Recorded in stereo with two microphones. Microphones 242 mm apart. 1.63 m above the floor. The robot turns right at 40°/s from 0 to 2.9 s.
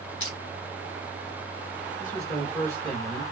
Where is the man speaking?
140° left, 1.1 m; by 3.2 s 175° left, 1.1 m.